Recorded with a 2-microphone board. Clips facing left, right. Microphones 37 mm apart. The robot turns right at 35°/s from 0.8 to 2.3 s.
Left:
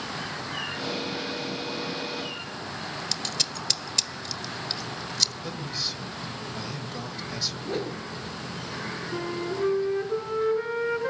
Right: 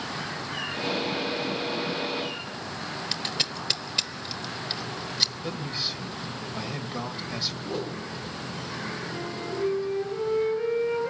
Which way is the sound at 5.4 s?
20° right (ahead or behind).